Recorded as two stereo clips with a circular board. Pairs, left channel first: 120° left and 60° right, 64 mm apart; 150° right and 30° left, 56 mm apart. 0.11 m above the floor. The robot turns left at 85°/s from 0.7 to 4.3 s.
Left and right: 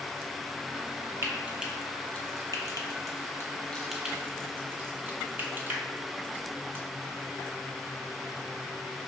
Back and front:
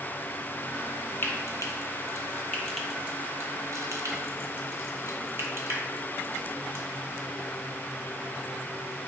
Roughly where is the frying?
Right.